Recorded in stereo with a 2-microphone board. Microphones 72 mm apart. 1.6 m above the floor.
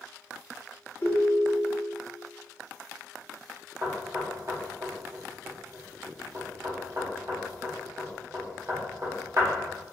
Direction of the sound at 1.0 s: 40° left (ahead or behind).